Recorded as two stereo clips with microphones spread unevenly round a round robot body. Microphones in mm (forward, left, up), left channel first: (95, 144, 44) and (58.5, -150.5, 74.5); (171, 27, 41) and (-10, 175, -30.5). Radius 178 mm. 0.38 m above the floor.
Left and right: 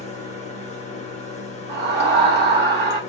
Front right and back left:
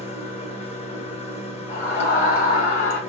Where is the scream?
100° right, 0.8 m.